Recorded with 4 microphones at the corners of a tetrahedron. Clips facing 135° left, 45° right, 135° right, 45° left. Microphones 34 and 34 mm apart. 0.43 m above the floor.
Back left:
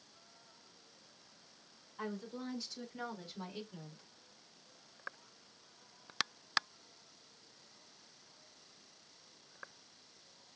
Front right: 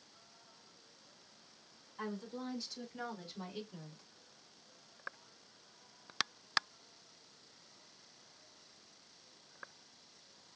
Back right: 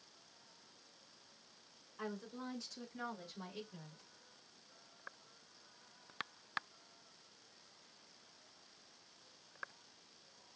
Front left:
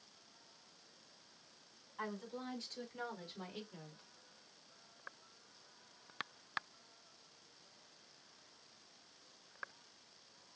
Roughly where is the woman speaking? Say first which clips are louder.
Even, front left 1 dB; ahead left.